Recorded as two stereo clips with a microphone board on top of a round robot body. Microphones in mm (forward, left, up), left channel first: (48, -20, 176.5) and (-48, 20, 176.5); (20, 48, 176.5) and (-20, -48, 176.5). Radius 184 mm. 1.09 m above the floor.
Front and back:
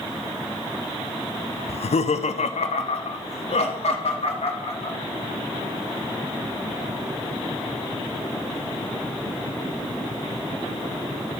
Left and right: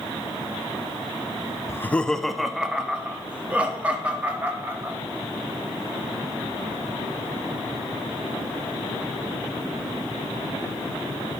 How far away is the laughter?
About 0.5 m.